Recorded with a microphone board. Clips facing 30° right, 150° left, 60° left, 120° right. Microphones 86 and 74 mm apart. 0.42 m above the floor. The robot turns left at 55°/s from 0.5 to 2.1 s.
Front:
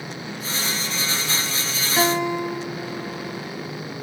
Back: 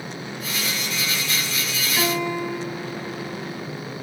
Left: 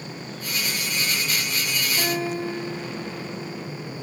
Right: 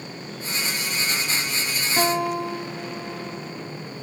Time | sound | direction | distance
2.0 | a guitar | 95° right | 2 m